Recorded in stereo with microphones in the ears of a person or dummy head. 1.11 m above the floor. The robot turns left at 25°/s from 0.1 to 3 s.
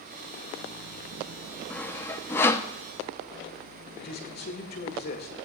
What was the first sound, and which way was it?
Sawing, 10° left (ahead or behind).